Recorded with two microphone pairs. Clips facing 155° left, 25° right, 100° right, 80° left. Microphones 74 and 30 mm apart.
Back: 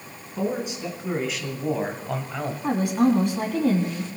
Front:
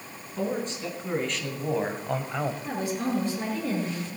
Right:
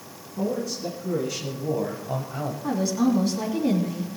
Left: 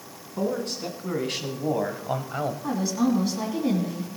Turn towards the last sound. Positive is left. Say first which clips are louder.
# back 8 dB, right 3 dB
turn(degrees=160)